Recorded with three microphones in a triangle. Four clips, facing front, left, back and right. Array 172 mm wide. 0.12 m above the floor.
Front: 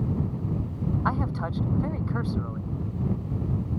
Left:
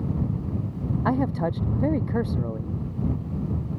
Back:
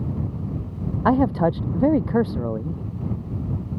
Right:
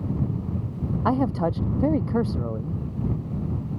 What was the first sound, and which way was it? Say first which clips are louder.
A man speaking: right 2 dB, back 14 dB; 170° right.